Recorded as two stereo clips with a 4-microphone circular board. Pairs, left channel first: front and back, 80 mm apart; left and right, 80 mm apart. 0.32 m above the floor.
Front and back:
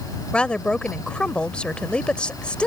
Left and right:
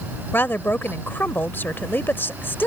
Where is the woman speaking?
60° left.